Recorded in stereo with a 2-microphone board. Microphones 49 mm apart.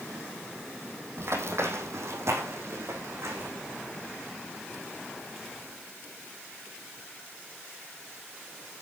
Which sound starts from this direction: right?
Running footsteps, at 1.2 s.